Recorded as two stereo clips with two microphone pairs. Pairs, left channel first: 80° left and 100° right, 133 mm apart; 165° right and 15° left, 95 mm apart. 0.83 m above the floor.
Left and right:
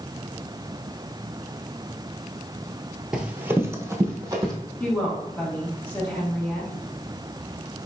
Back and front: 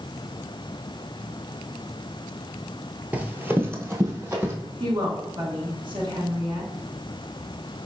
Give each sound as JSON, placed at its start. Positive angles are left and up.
{"t": 3.1, "sound": "running footsteps", "azimuth_deg": -20, "distance_m": 0.8}
{"t": 4.8, "sound": "a woman speaking", "azimuth_deg": 10, "distance_m": 1.5}